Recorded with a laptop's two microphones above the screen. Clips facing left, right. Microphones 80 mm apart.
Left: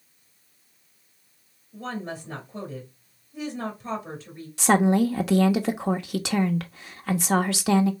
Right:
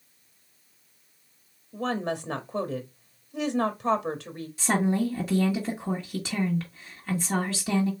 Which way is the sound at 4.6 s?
75° left (ahead or behind).